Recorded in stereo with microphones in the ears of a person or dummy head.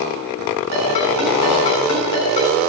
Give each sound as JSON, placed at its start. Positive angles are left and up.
{"t": 0.7, "sound": "a ringtone", "side_deg": 35, "distance_m": 6.5}